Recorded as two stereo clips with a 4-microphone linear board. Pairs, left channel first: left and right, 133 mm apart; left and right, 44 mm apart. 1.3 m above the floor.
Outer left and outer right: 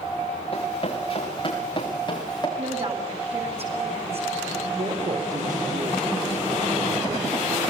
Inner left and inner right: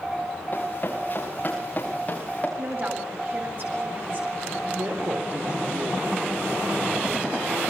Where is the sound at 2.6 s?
50° right (ahead or behind), 7.5 m.